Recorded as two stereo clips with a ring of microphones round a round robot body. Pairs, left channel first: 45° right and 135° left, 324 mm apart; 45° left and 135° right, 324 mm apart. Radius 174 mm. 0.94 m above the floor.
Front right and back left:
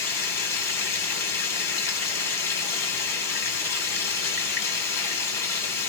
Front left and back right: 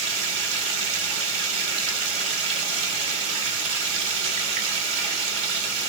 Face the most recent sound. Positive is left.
turn(degrees=-130)